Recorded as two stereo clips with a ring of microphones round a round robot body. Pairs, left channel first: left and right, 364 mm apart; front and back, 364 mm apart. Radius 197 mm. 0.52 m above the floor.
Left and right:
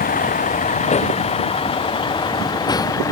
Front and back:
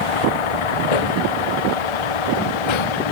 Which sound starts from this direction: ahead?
A vehicle, at 0.0 s.